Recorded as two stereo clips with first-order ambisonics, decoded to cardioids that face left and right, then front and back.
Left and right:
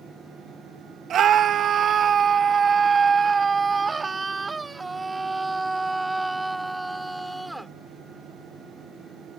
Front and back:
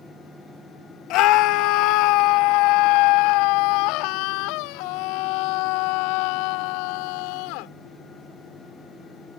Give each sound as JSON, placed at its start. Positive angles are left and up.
{"t": 1.1, "sound": "a scream", "azimuth_deg": -35}